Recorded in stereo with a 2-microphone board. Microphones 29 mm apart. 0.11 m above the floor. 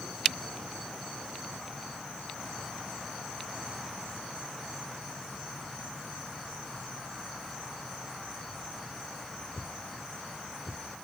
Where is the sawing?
I don't hear sawing.